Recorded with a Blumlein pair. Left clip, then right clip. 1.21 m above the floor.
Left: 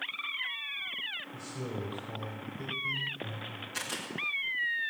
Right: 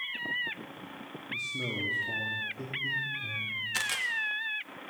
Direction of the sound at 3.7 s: 35° right.